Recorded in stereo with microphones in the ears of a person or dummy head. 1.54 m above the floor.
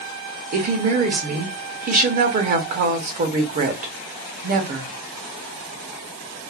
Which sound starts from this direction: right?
A woman speaking, at 0.5 s.